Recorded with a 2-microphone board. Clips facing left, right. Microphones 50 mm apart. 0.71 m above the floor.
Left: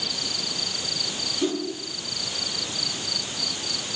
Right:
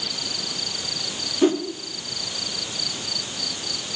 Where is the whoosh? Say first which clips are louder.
Right 7 dB; 35° right (ahead or behind), 0.8 m.